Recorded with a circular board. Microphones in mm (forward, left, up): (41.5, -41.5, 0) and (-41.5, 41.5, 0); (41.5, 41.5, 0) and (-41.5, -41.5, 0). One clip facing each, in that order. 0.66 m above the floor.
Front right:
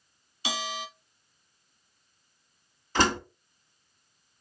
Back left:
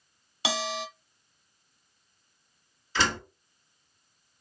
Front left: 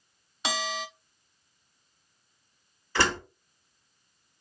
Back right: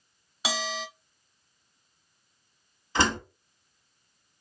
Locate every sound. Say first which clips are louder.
0.4 s a bell: back left 3 dB, even; 140° left, 0.9 m
3.0 s a door slam: front right 4 dB, back right 1 dB; 75° right, 1.0 m